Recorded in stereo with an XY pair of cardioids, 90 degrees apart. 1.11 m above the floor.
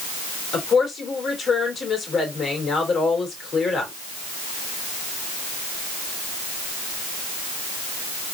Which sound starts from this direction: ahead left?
A woman speaking, at 0.5 s.